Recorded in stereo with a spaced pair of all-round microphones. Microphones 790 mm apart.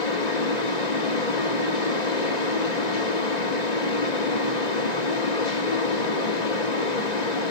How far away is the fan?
About 1.5 m.